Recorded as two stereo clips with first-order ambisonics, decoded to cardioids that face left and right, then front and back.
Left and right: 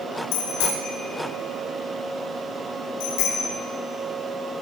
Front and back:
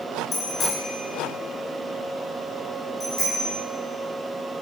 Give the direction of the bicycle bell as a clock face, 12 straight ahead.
10 o'clock.